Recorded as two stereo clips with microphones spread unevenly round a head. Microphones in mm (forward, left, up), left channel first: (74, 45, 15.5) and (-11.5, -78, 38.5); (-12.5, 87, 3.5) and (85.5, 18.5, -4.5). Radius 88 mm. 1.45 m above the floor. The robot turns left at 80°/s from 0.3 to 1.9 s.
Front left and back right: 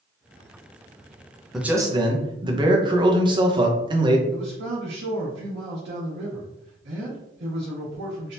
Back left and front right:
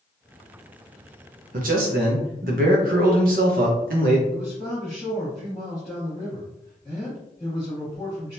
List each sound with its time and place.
1.5 s a man speaking: 35° right, 0.9 m; by 4.2 s 65° right, 0.9 m
4.3 s a man speaking: 135° right, 1.5 m